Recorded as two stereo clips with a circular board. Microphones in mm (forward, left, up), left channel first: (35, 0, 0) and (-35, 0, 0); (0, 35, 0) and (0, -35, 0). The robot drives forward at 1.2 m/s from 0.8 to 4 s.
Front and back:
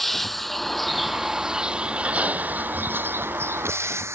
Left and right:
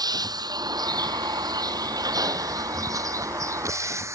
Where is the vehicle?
90° right; by 4.2 s 135° right.